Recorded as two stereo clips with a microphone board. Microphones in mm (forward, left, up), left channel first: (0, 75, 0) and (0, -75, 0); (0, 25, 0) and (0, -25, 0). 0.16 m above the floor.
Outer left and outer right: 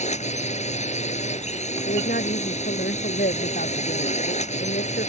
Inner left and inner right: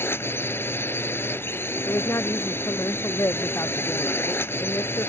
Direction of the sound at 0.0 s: 50° left (ahead or behind).